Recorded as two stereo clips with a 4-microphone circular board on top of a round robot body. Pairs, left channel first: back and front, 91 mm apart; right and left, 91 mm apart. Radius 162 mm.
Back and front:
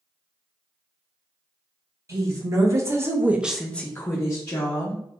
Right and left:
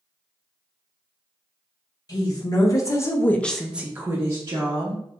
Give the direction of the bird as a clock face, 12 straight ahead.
I don't hear a bird.